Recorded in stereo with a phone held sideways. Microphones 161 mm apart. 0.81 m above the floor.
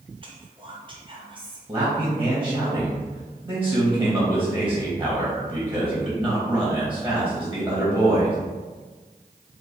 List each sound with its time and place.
0.2 s whispering: 30° right (ahead or behind), 0.7 m
1.7 s a man speaking: 10° right (ahead or behind), 1.0 m